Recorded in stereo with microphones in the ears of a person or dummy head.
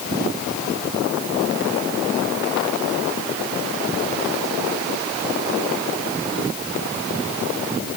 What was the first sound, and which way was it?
Only background noise.